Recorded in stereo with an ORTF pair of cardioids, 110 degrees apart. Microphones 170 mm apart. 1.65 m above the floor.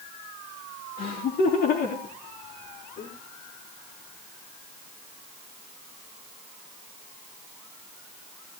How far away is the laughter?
About 3 m.